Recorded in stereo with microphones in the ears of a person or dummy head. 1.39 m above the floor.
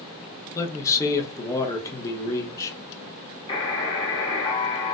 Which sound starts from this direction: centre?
A man speaking, at 0.6 s.